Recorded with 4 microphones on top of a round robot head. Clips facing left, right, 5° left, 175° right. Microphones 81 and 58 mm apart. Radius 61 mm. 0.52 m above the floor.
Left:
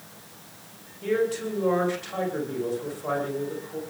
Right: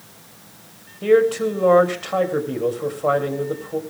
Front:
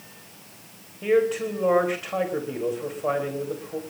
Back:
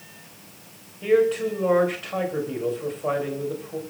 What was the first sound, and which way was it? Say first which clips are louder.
A man speaking: right 10 dB, back 2 dB; 75° right.